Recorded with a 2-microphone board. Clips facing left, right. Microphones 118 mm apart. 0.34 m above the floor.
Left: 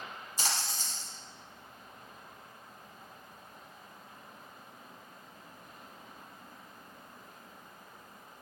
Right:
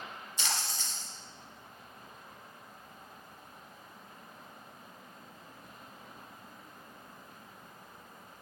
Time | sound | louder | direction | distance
0.4 | a splash | left 1 dB | 40° left (ahead or behind) | 1.1 m